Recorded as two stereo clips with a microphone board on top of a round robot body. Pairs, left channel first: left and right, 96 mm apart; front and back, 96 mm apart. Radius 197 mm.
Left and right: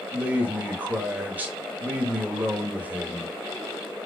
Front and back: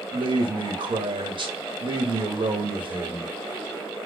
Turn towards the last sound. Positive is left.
turn(degrees=-160)